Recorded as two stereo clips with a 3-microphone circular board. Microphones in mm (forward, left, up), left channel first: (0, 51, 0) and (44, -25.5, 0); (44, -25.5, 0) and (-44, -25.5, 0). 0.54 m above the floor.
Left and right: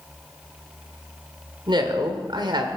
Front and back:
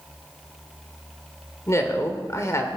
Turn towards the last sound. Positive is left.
turn(degrees=-50)